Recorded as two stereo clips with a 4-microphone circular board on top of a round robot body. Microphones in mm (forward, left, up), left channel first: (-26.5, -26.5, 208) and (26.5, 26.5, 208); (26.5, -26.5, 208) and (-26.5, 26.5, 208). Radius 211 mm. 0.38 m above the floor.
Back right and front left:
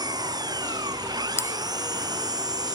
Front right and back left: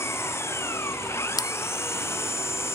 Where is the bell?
75° right.